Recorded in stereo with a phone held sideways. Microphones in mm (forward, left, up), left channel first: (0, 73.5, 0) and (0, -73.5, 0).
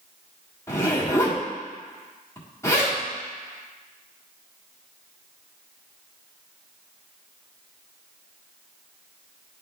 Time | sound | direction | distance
0.7 | a zipper | 20° left (ahead or behind) | 1.5 m